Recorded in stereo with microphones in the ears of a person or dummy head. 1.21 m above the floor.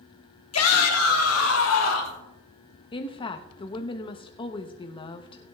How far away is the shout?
About 1.4 m.